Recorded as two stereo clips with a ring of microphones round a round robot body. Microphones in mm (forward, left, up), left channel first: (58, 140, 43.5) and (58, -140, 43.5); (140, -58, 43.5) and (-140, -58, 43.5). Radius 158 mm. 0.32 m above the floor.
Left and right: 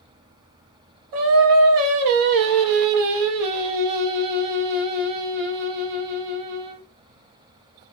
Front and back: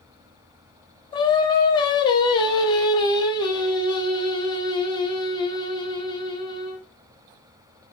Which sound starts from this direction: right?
Singing, at 1.1 s.